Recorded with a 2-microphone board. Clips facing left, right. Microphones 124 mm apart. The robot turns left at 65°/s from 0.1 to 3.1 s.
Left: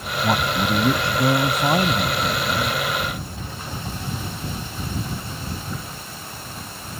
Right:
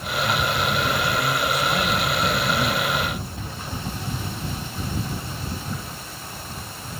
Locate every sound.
0.2 s a man speaking: 140° left; by 3.1 s 45° right